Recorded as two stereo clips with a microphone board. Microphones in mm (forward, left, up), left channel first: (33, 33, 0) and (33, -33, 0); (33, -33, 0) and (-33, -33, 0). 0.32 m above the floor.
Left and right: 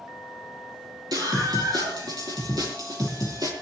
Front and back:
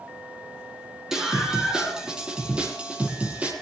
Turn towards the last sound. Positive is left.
turn(degrees=-110)